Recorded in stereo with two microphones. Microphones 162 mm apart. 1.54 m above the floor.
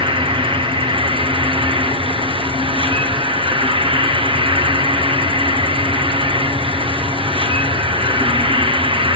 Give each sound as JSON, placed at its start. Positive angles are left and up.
{"t": 0.0, "sound": "an insect", "side_deg": -35, "distance_m": 1.0}